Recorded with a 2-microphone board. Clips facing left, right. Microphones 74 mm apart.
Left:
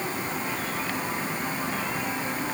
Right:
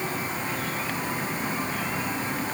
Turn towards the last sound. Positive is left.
No sound to turn to.